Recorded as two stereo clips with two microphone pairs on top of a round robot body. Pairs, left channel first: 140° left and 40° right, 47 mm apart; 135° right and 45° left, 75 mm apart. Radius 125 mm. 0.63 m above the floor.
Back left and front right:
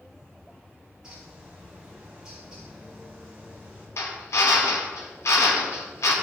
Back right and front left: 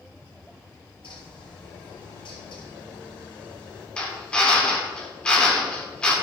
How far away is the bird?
About 1.6 m.